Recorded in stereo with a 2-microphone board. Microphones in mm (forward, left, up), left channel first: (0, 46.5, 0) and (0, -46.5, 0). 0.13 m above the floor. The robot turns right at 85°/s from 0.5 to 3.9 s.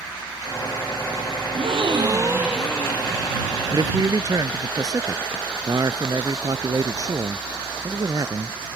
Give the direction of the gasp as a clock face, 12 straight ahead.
3 o'clock.